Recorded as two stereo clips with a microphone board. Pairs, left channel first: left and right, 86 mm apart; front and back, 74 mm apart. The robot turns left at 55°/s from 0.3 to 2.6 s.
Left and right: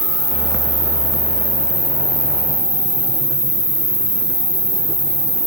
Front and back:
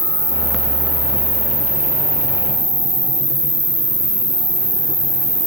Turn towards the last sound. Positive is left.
turn(degrees=135)